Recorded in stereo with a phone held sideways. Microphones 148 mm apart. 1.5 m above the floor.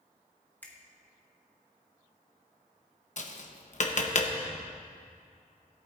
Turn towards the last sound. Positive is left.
turn(degrees=55)  # may be behind; listen again after turning